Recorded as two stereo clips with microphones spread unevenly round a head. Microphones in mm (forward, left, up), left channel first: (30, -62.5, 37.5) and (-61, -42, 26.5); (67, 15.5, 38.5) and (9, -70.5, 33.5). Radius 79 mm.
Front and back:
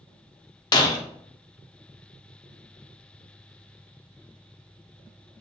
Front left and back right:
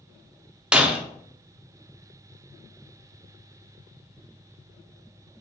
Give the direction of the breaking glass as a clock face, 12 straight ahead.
1 o'clock.